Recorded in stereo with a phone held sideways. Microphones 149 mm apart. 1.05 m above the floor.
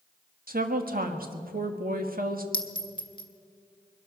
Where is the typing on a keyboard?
No typing on a keyboard in this recording.